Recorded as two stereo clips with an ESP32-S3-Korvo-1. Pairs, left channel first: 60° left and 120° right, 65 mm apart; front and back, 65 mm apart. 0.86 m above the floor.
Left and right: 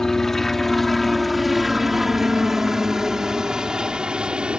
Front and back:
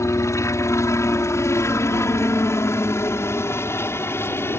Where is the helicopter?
20° right; by 4.6 s 45° right.